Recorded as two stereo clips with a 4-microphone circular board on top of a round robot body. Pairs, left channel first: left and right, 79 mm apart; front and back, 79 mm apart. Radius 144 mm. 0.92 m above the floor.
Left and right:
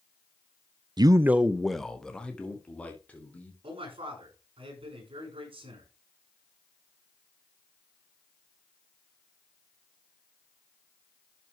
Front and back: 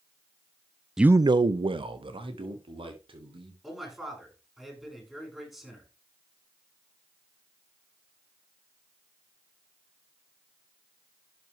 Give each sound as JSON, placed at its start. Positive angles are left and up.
{"t": 1.0, "sound": "a man speaking", "azimuth_deg": -100, "distance_m": 0.5}
{"t": 3.6, "sound": "a man speaking", "azimuth_deg": -95, "distance_m": 7.0}